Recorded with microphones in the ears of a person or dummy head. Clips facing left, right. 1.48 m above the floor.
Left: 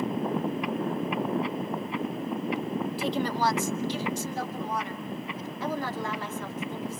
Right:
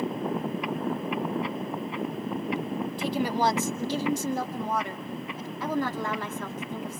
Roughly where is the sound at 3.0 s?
Centre.